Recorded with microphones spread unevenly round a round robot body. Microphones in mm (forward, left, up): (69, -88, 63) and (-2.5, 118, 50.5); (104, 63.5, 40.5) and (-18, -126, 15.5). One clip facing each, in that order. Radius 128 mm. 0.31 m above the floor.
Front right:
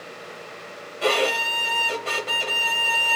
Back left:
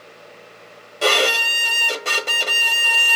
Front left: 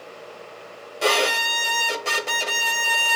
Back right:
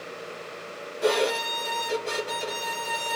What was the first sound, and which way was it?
A violin, 75° left.